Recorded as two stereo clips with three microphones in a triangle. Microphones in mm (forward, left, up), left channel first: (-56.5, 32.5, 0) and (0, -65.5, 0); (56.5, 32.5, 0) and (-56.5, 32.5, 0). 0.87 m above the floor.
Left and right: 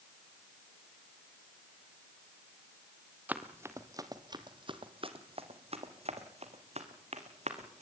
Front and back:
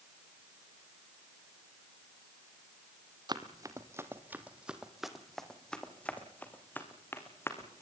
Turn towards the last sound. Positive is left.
turn(degrees=-65)